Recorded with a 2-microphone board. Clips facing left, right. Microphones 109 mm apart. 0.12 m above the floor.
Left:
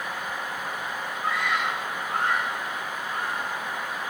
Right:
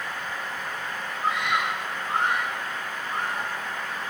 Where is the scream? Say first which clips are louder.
Right 1 dB; 20° right (ahead or behind), 8 m.